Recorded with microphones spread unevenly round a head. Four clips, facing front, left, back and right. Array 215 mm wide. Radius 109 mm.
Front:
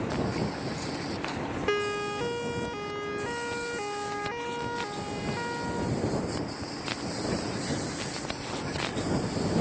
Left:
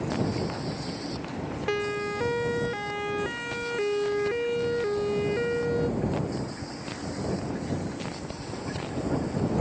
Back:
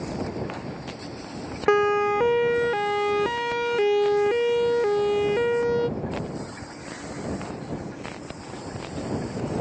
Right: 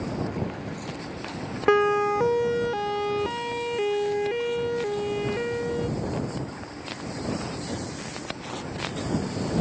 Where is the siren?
130° right; by 5.9 s 175° left.